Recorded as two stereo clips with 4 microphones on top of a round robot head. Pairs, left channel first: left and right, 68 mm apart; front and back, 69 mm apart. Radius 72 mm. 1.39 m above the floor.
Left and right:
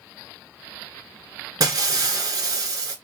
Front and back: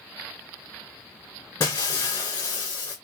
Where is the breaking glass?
60° right, 2 m.